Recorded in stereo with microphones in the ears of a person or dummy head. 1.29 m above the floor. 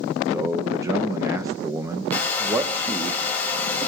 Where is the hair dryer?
15° left (ahead or behind), 4 m.